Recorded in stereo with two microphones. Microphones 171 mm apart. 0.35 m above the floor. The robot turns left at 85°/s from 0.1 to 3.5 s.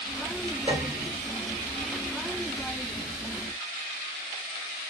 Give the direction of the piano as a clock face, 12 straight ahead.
4 o'clock.